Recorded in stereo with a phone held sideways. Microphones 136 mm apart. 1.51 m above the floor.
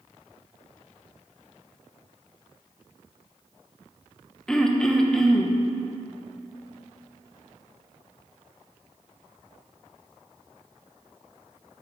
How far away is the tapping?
No tapping in this recording.